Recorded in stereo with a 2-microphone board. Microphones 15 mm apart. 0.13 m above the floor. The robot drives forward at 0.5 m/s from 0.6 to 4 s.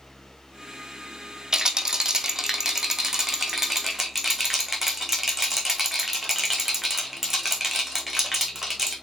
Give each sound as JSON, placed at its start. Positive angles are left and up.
{"t": 1.5, "sound": "a rattle", "side_deg": -45, "distance_m": 1.3}